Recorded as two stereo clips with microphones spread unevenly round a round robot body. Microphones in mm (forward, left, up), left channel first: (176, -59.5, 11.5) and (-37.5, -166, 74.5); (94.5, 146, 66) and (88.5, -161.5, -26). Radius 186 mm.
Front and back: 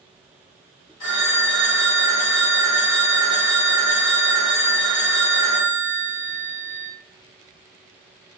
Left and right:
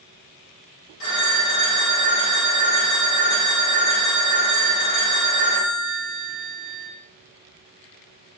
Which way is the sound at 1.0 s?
60° left.